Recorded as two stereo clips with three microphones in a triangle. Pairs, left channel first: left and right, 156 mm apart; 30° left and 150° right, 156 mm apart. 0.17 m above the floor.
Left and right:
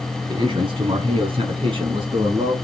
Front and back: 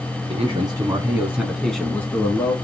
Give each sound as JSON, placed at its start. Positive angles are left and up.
{"t": 0.3, "sound": "a man speaking", "azimuth_deg": -130, "distance_m": 1.4}